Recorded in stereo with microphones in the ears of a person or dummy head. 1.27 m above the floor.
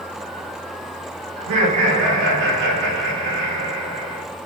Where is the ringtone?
I don't hear a ringtone.